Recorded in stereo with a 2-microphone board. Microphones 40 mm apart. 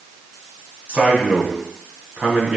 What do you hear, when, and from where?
0.9 s a man speaking: 35° right (ahead or behind), 3.5 m